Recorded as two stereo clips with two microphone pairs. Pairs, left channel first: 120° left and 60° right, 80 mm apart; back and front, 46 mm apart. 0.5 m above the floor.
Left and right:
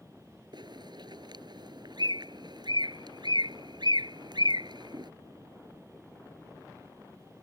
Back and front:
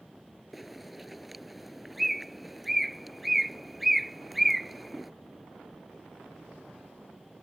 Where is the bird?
85° right.